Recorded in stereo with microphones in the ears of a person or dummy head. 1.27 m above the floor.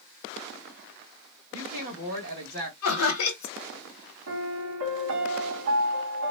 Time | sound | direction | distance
1.5 | a woman speaking | 40° right (ahead or behind) | 2 m
2.8 | laughter | 75° left (ahead or behind) | 1.0 m
4.3 | a piano | 70° right (ahead or behind) | 1.7 m